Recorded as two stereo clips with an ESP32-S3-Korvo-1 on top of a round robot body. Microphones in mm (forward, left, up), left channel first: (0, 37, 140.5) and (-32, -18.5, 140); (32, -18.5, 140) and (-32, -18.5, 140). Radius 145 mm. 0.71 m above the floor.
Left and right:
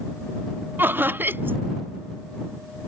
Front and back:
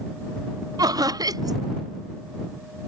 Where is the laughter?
175° right.